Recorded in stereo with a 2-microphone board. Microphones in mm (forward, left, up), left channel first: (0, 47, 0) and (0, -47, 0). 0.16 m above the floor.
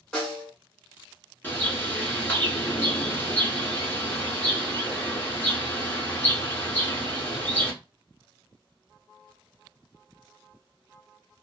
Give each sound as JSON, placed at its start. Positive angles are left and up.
{"t": 0.1, "sound": "a snare drum", "side_deg": 10, "distance_m": 1.4}
{"t": 1.4, "sound": "a bird", "side_deg": 20, "distance_m": 1.1}